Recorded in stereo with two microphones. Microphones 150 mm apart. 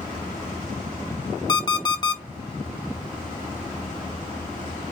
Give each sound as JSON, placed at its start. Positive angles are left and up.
{"t": 1.5, "sound": "an alarm clock", "side_deg": 30, "distance_m": 0.5}